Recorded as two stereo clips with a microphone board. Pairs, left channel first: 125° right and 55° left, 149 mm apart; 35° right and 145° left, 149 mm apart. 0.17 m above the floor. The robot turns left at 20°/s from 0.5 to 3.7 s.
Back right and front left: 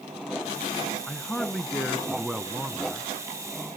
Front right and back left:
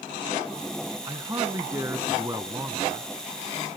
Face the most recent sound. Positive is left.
turn(degrees=115)